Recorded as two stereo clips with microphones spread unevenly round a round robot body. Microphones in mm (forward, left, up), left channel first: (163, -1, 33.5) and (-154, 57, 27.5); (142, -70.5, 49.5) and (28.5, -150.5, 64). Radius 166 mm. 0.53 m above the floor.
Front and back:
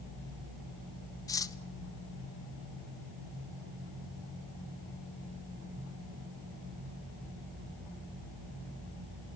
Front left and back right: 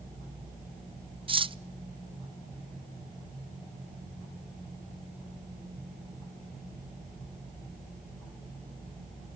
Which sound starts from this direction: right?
Cutlery clinking, at 1.3 s.